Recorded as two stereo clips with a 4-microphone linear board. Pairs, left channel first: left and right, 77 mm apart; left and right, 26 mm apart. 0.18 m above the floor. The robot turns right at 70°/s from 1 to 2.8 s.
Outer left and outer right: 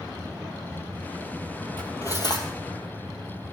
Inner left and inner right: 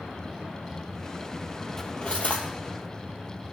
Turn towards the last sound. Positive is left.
turn(degrees=95)